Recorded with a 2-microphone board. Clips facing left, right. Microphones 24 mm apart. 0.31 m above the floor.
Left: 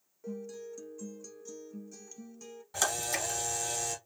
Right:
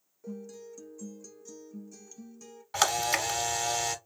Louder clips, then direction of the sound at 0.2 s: Left 1 dB; 10° left (ahead or behind).